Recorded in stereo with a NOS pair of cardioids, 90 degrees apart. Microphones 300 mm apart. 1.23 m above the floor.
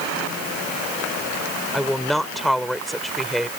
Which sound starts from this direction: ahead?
A woman speaking, at 1.7 s.